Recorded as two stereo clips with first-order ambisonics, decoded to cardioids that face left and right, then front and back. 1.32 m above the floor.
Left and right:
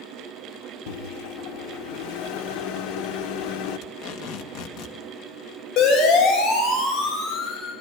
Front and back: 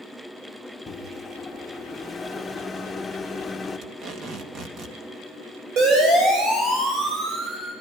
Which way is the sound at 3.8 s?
130° left.